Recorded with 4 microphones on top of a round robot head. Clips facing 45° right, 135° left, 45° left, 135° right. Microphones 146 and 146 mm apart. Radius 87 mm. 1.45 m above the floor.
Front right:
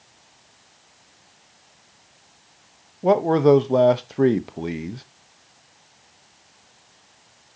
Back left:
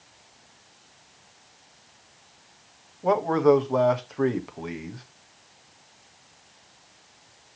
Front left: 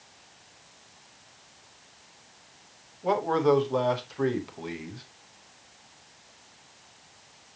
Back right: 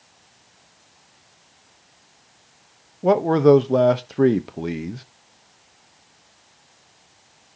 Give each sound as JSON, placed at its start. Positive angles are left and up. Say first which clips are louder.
{"t": 3.0, "sound": "a man speaking", "louder": "front right 4 dB, back right 9 dB", "azimuth_deg": -105, "distance_m": 0.9}